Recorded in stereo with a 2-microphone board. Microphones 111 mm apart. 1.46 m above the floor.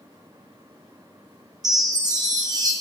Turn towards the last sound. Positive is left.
turn(degrees=-35)  # may be behind; listen again after turning